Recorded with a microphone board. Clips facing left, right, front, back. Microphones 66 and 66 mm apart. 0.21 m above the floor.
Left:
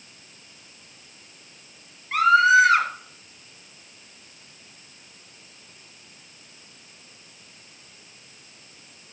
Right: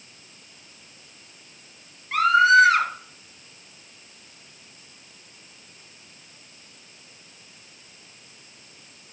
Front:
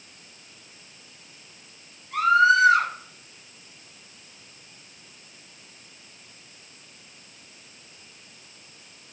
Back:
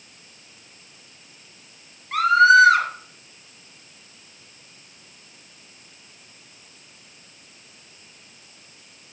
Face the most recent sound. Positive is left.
turn(degrees=180)